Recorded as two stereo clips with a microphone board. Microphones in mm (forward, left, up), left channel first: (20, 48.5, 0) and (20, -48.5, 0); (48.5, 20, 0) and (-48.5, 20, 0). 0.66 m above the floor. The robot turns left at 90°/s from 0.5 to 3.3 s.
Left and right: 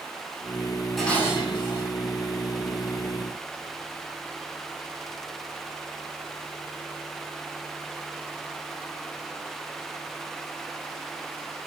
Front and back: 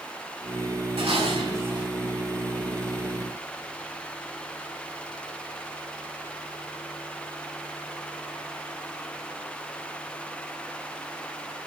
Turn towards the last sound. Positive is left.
turn(degrees=-30)